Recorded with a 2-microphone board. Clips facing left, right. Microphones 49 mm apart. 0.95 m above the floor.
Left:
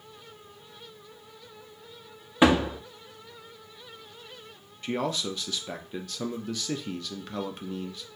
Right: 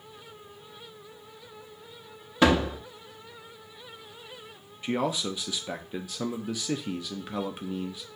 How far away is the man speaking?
About 0.6 m.